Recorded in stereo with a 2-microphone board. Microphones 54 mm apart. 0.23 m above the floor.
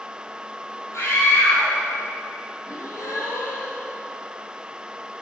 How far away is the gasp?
About 8 m.